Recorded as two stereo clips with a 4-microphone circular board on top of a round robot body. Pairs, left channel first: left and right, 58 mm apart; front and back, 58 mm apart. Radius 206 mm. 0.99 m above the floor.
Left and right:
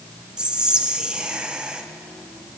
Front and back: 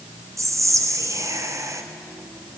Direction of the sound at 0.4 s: 165° right.